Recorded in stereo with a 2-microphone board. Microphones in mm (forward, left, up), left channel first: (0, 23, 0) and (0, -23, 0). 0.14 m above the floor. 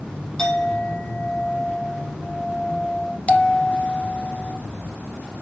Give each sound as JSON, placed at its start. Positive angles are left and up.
{"t": 0.4, "sound": "a clink", "side_deg": 10, "distance_m": 3.5}
{"t": 3.3, "sound": "a bell", "side_deg": 25, "distance_m": 1.4}